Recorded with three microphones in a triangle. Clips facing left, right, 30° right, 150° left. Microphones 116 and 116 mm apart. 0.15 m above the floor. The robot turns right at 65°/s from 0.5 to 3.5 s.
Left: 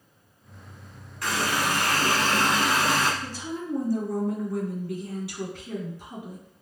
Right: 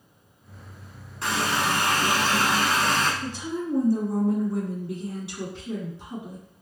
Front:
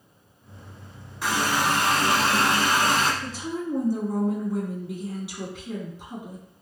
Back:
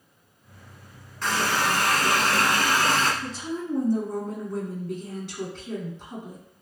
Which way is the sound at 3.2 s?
120° right.